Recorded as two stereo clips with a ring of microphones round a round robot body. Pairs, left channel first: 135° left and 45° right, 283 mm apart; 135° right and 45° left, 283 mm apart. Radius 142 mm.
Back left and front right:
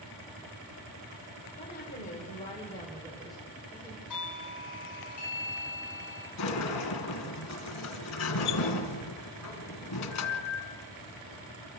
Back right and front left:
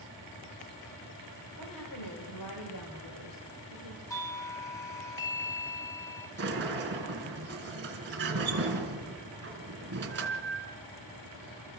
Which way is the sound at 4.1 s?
145° left.